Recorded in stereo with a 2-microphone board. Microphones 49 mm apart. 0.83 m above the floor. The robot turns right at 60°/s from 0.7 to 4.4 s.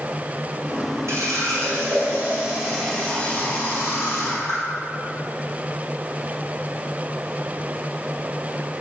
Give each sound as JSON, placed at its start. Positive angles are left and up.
{"t": 1.1, "sound": "a running tap", "azimuth_deg": -100, "distance_m": 2.5}